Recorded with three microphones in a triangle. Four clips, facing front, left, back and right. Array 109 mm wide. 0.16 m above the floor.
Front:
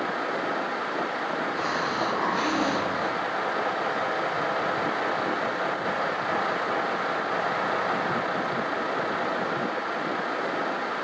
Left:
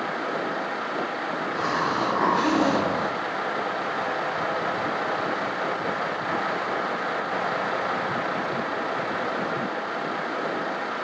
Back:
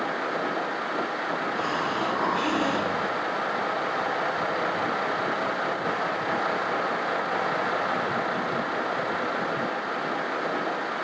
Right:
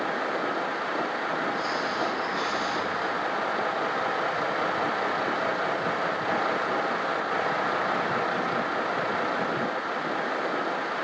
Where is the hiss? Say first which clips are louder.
Left 3 dB, even; 95° left, 1.1 m.